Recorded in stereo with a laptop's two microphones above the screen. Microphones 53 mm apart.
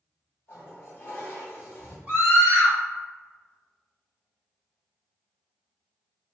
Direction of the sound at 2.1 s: 25° right (ahead or behind).